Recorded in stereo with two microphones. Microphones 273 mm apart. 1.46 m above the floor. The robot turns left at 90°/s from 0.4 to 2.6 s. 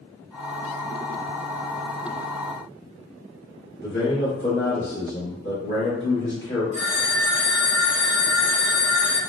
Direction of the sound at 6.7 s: 25° right (ahead or behind).